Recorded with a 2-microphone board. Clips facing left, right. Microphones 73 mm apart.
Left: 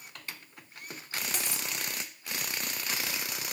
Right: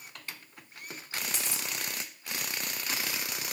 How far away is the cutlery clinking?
About 1.4 m.